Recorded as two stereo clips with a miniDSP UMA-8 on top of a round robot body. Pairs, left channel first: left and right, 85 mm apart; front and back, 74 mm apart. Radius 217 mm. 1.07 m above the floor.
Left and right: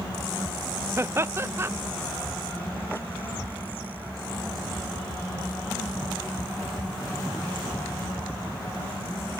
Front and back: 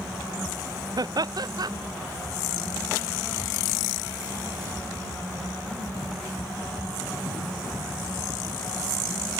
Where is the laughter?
150° right.